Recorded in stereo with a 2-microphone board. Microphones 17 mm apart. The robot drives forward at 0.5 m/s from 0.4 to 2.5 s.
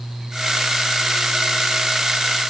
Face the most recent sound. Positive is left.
No sound to turn to.